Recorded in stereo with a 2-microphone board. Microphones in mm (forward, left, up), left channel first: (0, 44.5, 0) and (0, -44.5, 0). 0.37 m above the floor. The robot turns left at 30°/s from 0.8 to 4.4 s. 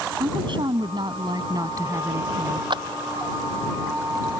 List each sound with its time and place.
0.2 s a woman speaking: 105° right; by 2.6 s 160° right
2.7 s a clap: 65° right (ahead or behind); by 2.8 s 60° right (ahead or behind)